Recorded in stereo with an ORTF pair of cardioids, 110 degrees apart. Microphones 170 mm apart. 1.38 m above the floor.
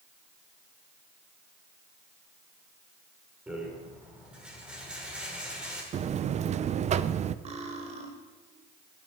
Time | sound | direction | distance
3.5 | a rattle | 5° right | 5 m
5.9 | a buzzer | 40° right | 0.7 m
7.5 | cutlery clinking | 40° right | 3 m